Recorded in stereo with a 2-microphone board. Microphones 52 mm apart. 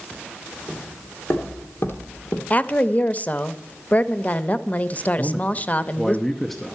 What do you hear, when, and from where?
0.7 s footsteps: 50° left (ahead or behind), 3 m; by 2.4 s 45° left (ahead or behind), 1.7 m
2.5 s a woman speaking: 30° left (ahead or behind), 0.6 m
5.2 s a man speaking: 5° left (ahead or behind), 0.8 m